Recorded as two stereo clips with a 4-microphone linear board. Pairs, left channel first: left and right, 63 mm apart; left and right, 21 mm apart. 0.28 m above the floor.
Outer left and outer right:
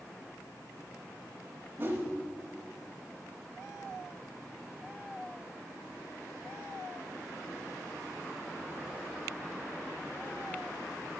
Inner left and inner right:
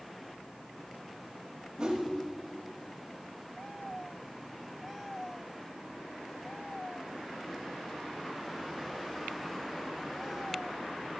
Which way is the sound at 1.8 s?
35° right (ahead or behind).